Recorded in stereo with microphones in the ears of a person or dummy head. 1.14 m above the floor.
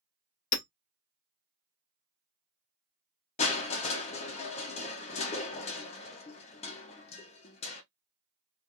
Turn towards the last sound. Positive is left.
turn(degrees=30)  # may be behind; listen again after turning